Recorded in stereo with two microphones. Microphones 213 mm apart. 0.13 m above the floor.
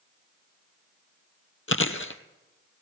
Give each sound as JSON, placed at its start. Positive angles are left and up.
{"t": 1.7, "sound": "chewing", "side_deg": 70, "distance_m": 1.2}